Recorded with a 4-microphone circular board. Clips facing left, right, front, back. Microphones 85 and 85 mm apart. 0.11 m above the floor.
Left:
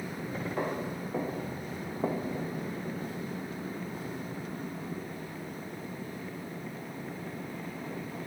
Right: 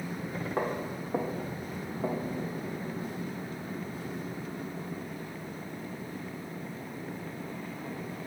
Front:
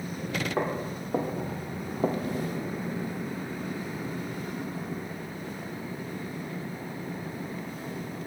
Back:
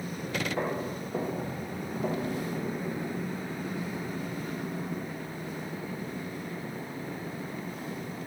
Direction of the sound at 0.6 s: 40° right.